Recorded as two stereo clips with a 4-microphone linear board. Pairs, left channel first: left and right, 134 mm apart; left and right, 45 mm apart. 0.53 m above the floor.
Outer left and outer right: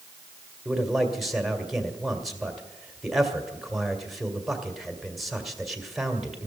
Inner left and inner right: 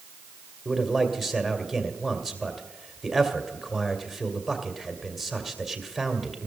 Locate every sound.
0.7 s a man speaking: centre (ahead or behind), 2 m